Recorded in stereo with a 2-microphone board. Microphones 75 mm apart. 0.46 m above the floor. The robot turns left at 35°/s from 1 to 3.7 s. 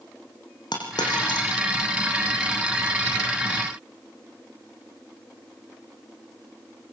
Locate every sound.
0.7 s a dropped coin: 70° left (ahead or behind), 6 m; by 1.5 s 85° left, 6 m